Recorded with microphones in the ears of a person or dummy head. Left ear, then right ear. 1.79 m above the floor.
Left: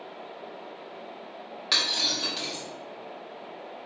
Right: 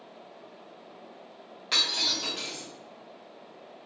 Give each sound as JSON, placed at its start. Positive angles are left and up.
{"t": 1.7, "sound": "breaking glass", "side_deg": 15, "distance_m": 2.0}